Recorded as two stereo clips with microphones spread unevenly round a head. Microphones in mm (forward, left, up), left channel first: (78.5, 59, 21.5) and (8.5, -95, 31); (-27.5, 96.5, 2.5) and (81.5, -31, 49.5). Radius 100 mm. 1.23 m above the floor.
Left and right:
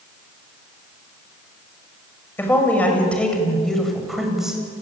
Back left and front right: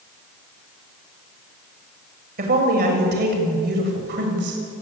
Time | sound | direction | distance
2.4 | a woman speaking | 15° right | 6.5 m